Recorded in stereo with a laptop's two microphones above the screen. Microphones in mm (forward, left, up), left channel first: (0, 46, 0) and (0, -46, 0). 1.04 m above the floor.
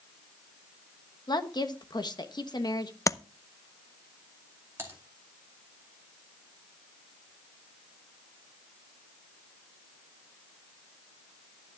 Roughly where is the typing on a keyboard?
Right.